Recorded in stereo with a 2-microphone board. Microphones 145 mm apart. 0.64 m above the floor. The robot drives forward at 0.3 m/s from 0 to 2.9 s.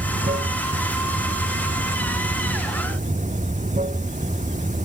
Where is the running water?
70° right (ahead or behind); by 4.9 s 60° right (ahead or behind).